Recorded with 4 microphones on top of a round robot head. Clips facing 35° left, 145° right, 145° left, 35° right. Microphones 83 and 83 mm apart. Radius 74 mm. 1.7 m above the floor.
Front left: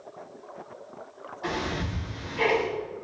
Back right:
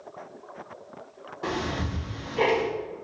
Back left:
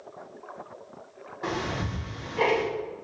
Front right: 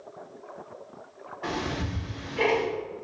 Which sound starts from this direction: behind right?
Ticking, at 1.4 s.